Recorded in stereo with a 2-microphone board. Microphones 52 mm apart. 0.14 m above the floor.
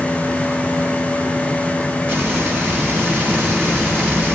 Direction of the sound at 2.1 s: 35° right (ahead or behind).